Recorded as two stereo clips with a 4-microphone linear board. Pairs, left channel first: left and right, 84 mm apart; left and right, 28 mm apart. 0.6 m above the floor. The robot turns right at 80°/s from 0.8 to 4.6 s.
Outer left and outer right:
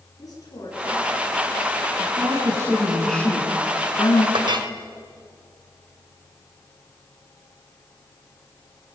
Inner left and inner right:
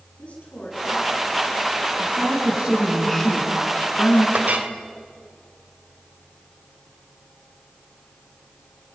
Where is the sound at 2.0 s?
85° right, 6 m; by 4.2 s 95° left, 6 m.